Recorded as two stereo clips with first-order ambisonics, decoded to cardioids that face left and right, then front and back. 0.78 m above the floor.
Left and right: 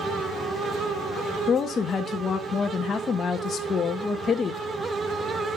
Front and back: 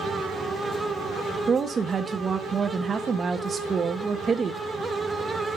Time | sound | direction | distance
1.5 | a woman speaking | 130° left | 0.5 m